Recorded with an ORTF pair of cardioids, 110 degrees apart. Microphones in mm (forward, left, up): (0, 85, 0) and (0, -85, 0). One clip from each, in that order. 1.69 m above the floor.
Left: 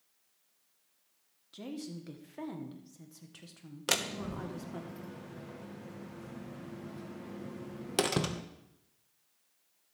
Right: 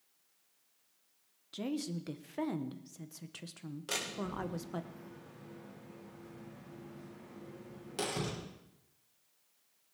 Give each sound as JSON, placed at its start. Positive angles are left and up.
{"t": 1.5, "sound": "a woman speaking", "azimuth_deg": -30, "distance_m": 1.2}
{"t": 3.9, "sound": "a door slam", "azimuth_deg": 65, "distance_m": 1.4}